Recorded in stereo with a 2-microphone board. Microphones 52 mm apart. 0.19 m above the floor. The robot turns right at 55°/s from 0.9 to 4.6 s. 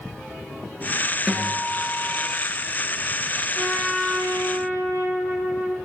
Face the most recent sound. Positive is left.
turn(degrees=60)